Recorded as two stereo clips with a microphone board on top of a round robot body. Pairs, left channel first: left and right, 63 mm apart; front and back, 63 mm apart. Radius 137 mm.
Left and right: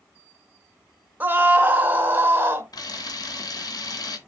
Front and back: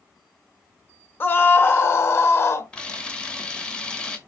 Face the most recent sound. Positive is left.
turn(degrees=75)